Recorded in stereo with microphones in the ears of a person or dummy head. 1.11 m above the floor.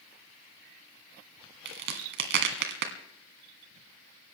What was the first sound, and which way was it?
A crack, 70° right (ahead or behind).